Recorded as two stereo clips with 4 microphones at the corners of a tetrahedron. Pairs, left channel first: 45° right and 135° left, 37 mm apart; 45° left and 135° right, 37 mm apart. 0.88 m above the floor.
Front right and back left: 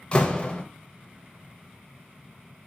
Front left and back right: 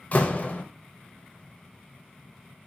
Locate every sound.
0.1 s a door slam: 15° left, 0.6 m